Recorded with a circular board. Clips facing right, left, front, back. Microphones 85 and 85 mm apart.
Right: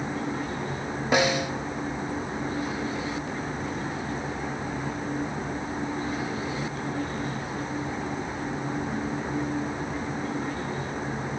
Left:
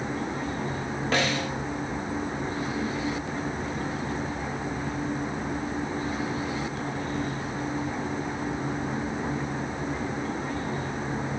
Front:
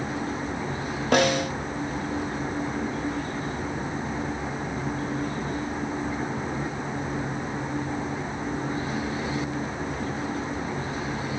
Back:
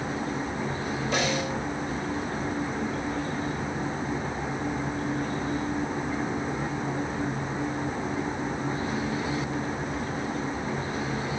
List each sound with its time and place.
1.1 s a snare drum: 15° right, 1.0 m